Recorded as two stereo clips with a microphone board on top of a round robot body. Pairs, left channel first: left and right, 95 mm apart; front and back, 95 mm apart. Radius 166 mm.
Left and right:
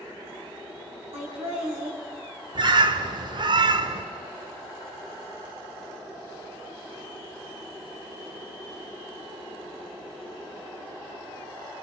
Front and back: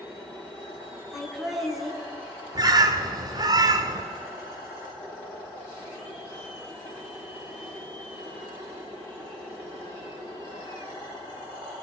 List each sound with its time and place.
1.1 s laughter: 90° right, 6 m
2.5 s a bird: 130° right, 1.2 m